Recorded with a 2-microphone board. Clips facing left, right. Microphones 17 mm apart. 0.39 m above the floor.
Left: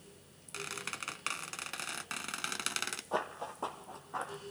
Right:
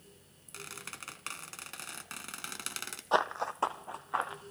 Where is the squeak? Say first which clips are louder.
Left 4 dB; 20° left (ahead or behind), 0.6 m.